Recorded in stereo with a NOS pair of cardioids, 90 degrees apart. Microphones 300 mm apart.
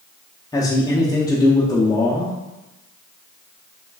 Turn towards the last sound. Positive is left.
turn(degrees=10)